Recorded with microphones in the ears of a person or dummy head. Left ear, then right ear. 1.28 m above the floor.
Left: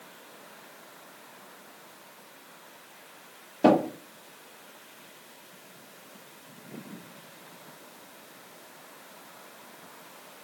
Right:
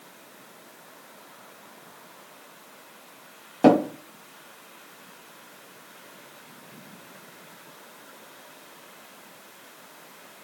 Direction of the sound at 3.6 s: 50° right (ahead or behind).